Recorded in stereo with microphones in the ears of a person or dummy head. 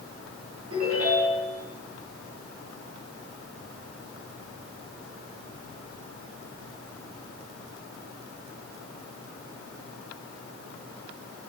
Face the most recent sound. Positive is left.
turn(degrees=-45)  # may be behind; listen again after turning